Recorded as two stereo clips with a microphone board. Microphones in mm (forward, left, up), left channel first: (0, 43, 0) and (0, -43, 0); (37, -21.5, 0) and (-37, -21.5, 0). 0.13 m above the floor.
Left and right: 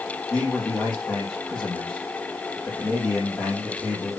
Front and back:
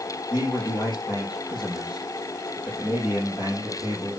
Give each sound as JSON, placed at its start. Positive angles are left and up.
{"t": 0.3, "sound": "a man speaking", "azimuth_deg": 15, "distance_m": 5.0}